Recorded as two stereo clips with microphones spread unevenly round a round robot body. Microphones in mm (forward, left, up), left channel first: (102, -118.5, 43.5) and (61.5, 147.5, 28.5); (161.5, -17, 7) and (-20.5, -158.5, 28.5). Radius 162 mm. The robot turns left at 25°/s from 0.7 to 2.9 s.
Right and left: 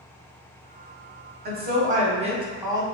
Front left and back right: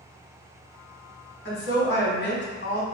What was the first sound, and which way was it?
A woman speaking, 60° left.